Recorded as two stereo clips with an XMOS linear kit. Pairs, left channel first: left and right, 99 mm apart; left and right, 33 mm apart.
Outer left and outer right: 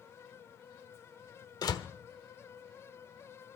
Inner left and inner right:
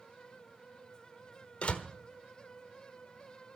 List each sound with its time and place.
1.6 s a door slam: 45° left (ahead or behind), 1.1 m